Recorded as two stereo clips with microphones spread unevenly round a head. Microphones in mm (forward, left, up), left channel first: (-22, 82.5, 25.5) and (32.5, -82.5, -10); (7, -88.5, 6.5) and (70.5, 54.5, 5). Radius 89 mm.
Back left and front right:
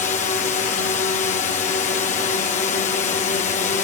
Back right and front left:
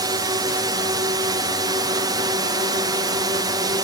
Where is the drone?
100° left.